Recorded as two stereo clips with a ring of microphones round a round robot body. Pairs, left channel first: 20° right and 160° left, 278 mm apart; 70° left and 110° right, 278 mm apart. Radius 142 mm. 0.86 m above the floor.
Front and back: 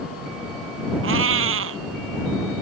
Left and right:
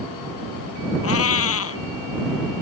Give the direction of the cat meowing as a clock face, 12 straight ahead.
8 o'clock.